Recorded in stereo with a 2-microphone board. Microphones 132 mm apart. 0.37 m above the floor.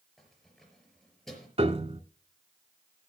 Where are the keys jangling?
5° left (ahead or behind), 5 m.